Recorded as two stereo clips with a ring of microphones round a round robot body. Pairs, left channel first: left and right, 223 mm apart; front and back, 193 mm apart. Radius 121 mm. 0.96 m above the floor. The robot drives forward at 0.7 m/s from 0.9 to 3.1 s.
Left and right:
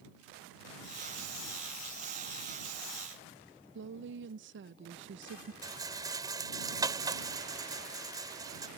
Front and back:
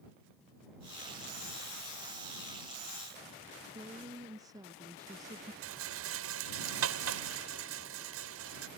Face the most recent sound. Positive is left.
turn(degrees=-165)